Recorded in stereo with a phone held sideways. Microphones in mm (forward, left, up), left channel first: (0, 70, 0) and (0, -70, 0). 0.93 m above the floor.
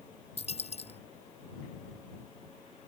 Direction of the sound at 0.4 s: 45° left (ahead or behind).